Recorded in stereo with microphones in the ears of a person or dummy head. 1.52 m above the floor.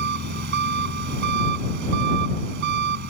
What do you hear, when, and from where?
0.0 s an engine running: 50° right (ahead or behind)